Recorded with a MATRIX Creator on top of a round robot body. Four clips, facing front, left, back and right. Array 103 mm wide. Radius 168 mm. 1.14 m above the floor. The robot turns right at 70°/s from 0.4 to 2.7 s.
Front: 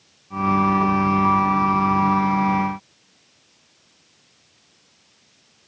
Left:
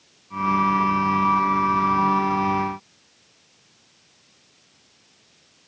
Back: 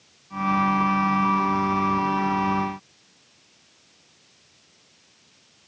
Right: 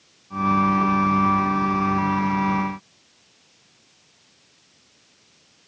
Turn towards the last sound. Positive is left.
No sound to turn to.